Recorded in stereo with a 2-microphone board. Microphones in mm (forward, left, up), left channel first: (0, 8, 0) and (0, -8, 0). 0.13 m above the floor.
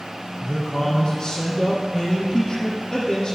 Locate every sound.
0.4 s a man speaking: 25° left (ahead or behind), 3 m